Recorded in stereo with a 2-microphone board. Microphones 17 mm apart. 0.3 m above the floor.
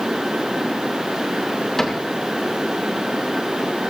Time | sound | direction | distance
1.8 | a cupboard door | 30° left (ahead or behind) | 2.5 m